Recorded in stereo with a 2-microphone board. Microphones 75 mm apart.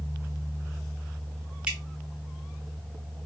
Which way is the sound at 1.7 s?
15° right (ahead or behind).